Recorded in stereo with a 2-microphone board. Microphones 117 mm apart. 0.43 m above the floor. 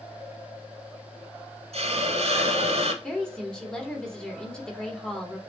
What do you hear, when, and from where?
1.7 s a hiss: 65° right (ahead or behind), 1.0 m
3.0 s a woman speaking: 5° left (ahead or behind), 1.4 m